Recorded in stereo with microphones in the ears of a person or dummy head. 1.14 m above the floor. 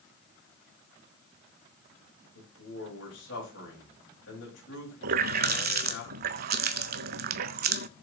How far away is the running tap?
About 0.5 m.